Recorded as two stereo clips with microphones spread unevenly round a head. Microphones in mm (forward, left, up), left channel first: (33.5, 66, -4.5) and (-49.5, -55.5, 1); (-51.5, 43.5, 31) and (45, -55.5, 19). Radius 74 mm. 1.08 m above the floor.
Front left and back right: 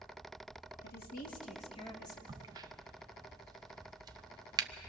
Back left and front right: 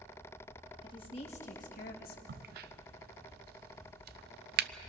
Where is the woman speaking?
75° left, 2.5 m; by 2.2 s 125° left, 2 m.